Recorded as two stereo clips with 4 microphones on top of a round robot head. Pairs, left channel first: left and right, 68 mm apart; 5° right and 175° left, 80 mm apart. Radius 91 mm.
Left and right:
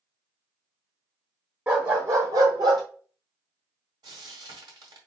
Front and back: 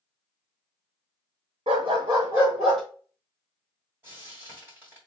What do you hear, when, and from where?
1.7 s a dog barking: 155° right, 1.0 m; by 2.8 s 90° right, 1.1 m
4.0 s frying: 115° right, 1.5 m